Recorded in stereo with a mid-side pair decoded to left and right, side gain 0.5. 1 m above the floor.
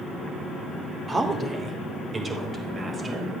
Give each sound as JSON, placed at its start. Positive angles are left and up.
{"t": 1.1, "sound": "a woman speaking", "azimuth_deg": -20, "distance_m": 3.0}